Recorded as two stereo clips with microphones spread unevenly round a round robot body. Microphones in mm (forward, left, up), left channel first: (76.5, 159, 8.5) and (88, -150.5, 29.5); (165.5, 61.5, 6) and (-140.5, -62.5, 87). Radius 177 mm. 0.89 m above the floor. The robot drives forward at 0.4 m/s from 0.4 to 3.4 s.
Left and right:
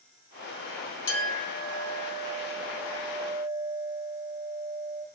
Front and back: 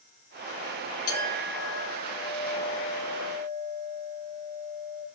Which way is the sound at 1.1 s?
40° left.